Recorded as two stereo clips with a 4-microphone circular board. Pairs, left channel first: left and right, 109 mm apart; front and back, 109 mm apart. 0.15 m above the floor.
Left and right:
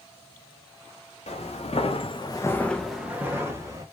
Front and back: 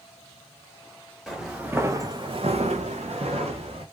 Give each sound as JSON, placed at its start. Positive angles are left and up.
{"t": 1.3, "sound": "footsteps", "azimuth_deg": 95, "distance_m": 1.1}